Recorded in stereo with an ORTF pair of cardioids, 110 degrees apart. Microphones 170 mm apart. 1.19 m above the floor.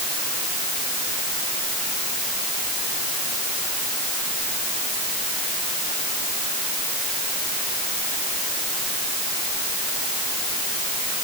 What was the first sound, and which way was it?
Only background noise.